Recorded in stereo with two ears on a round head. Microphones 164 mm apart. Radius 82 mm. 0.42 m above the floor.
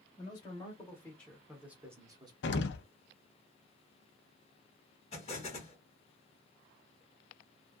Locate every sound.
0.2 s a man speaking: 25° left (ahead or behind), 1.4 m; by 2.3 s 25° right (ahead or behind), 1.1 m
2.4 s an explosion: 60° left (ahead or behind), 0.6 m
5.1 s an explosion: 35° left (ahead or behind), 1.5 m